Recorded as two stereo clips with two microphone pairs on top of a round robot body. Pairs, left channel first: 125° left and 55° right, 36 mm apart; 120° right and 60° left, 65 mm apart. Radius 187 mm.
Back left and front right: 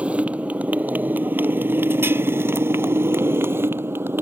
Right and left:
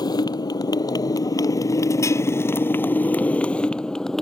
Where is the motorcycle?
110° right; by 4.2 s 35° right.